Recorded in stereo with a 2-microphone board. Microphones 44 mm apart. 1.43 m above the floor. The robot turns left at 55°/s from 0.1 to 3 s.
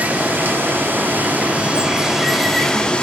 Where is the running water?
55° right, 1.2 m; by 3.0 s 145° left, 1.2 m.